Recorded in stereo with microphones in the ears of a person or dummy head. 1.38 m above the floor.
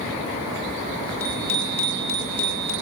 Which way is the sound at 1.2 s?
15° left (ahead or behind).